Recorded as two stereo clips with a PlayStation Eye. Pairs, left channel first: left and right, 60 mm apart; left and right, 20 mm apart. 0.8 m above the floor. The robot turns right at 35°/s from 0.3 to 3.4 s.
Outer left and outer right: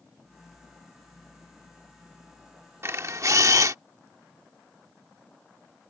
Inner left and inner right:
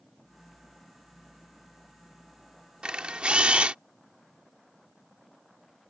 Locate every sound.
2.8 s a camera shutter: 50° right (ahead or behind); by 3.8 s 70° right (ahead or behind)